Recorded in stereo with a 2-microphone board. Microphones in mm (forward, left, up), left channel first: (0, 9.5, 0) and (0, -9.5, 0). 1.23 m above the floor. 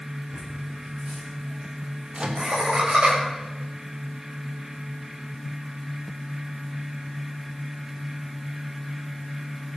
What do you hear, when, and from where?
0.3 s laughter: 55° right (ahead or behind), 9.5 m; by 3.1 s 60° right (ahead or behind), 7.5 m
2.1 s a microwave: 55° right (ahead or behind), 2 m